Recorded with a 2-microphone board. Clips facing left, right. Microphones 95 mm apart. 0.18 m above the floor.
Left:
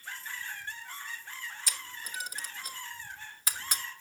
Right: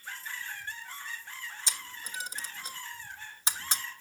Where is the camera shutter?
25° right (ahead or behind), 1.2 m.